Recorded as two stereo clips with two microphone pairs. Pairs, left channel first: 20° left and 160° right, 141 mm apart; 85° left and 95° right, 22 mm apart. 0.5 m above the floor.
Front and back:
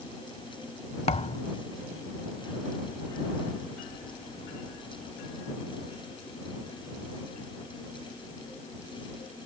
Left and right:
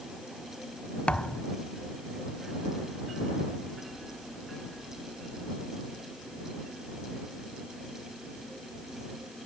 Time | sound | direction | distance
1.1 | a thud | 55° left | ?